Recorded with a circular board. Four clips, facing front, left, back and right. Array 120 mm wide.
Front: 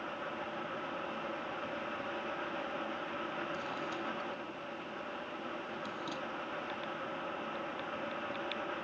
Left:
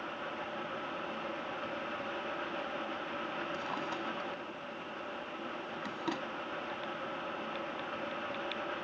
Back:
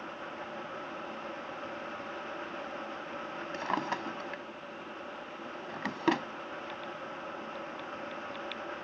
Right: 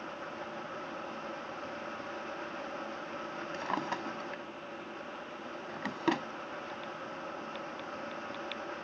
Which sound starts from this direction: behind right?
A drawer, at 3.5 s.